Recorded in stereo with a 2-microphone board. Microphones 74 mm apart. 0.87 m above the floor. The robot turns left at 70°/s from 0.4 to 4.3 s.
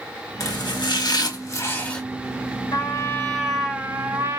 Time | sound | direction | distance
0.4 | chopping | 125° left | 1.2 m
2.7 | a trumpet | 60° left | 1.3 m